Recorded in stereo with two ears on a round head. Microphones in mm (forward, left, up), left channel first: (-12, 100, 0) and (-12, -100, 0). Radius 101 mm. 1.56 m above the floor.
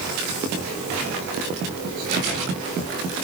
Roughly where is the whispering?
No whispering in this recording.